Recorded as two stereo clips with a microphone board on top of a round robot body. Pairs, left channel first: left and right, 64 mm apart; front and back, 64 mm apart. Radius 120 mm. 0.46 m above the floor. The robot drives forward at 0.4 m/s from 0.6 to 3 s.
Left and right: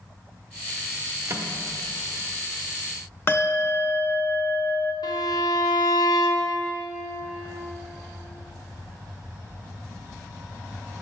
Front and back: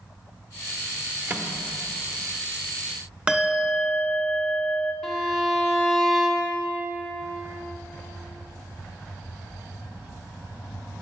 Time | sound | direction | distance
1.3 | a microwave | 125° right | 0.8 m
3.3 | a bell | 115° left | 0.7 m
5.0 | a violin | 95° left | 0.6 m